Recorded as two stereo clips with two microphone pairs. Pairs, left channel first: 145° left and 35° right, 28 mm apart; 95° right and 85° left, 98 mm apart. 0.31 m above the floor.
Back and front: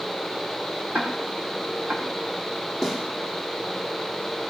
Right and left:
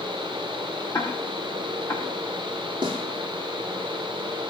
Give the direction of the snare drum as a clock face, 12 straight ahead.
11 o'clock.